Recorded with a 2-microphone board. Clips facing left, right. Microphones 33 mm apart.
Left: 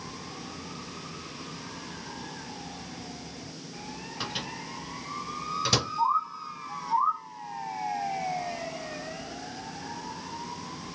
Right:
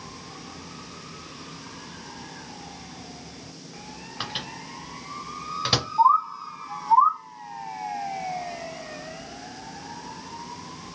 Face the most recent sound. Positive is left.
turn(degrees=-55)  # may be behind; listen again after turning